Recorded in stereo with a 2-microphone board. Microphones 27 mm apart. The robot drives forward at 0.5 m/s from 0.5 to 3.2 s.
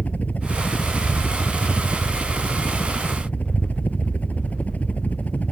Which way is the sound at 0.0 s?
60° left (ahead or behind).